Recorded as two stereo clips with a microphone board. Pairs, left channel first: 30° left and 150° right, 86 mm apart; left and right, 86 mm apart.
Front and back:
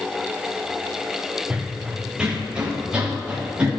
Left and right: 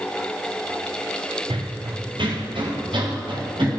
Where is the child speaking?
No child speaking in this recording.